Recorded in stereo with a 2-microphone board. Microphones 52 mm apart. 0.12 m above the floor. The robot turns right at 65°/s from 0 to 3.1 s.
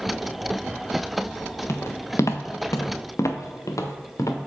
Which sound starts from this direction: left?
Footsteps, at 1.7 s.